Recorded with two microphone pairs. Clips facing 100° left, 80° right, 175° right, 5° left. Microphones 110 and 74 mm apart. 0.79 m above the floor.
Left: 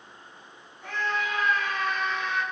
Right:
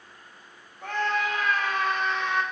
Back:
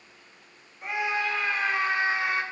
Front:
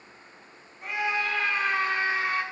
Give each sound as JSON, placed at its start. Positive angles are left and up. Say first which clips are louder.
{"t": 0.8, "sound": "a scream", "louder": "right 3 dB, even", "azimuth_deg": -95, "distance_m": 5.0}